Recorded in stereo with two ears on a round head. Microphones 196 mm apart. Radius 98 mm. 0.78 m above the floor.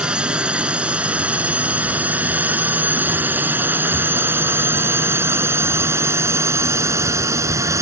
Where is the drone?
5° right (ahead or behind); by 7.8 s 15° right (ahead or behind).